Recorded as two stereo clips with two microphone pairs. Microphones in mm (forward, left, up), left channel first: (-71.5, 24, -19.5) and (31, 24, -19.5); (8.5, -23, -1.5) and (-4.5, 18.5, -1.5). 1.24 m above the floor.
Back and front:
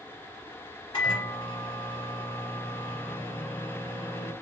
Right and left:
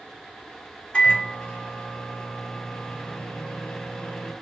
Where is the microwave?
140° right, 1.7 m.